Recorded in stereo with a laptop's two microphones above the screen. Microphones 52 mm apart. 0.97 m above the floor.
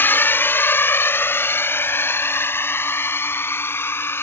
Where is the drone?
45° left (ahead or behind); by 4.2 s 50° left (ahead or behind).